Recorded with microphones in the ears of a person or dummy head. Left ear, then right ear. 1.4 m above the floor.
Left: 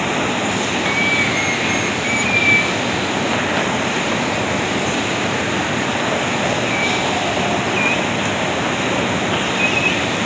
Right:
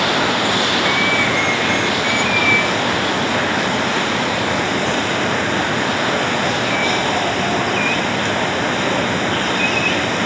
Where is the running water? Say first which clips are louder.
Right 3 dB; 15° right (ahead or behind).